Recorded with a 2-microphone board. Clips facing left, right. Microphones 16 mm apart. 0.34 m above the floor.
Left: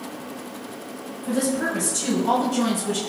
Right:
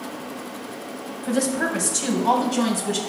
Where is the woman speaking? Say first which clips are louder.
Right 1 dB; 45° right (ahead or behind), 1.9 m; by 3.0 s 35° right (ahead or behind), 2.5 m.